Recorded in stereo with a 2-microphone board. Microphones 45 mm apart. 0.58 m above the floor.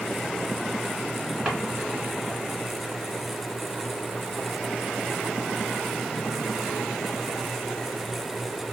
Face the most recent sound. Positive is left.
turn(degrees=-15)  # may be behind; listen again after turning